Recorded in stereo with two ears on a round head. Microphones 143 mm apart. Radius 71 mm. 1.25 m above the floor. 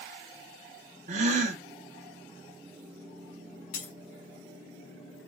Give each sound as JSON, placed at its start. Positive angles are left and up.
{"t": 1.1, "sound": "a gasp", "side_deg": -45, "distance_m": 0.5}
{"t": 3.7, "sound": "breaking glass", "side_deg": 55, "distance_m": 1.3}